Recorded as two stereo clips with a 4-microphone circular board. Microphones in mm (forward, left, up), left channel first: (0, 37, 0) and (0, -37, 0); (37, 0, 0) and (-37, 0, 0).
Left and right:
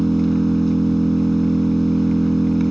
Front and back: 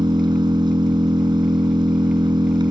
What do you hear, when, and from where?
0.0 s an engine running: straight behind